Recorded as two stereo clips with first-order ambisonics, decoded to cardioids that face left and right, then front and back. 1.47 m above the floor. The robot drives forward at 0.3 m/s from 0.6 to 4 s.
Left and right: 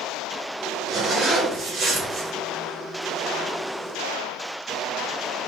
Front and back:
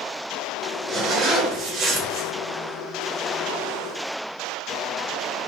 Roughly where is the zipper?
Behind right.